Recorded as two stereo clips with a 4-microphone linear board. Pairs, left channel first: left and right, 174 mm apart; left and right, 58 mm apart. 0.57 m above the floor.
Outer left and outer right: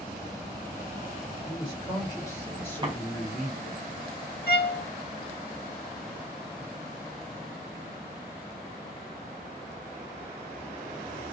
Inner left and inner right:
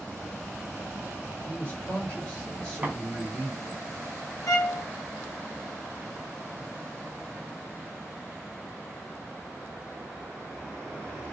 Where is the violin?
65° left (ahead or behind), 0.8 m.